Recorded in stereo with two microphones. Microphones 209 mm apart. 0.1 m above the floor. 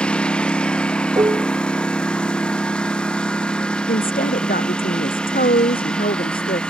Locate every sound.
0.0 s a lawn mower: 5° left (ahead or behind)
1.2 s dishes clattering: 20° right (ahead or behind)
3.9 s a woman speaking: 40° left (ahead or behind)